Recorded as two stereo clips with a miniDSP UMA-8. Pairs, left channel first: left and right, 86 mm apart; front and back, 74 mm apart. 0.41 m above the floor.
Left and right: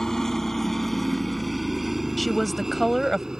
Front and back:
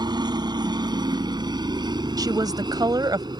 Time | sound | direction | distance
0.0 | a helicopter | 175° left | ?
2.2 | a woman speaking | straight behind | ?